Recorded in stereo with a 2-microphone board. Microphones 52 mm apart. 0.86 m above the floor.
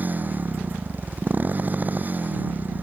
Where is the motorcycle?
35° right (ahead or behind).